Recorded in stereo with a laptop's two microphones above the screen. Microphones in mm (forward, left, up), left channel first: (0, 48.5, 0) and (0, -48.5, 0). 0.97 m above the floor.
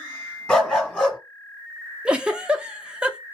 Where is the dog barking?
5° left (ahead or behind), 1.6 m.